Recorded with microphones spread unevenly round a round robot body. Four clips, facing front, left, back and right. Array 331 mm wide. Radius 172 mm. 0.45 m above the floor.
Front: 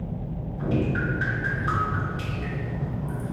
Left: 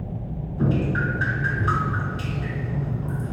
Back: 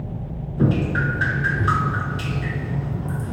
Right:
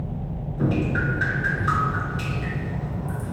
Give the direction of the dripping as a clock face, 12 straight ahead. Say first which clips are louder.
Even, back 5 dB; 6 o'clock.